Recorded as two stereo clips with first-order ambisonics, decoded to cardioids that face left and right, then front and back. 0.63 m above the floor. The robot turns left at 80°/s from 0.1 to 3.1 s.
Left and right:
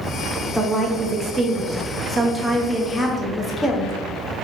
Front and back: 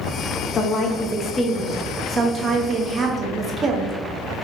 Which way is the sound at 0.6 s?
5° right.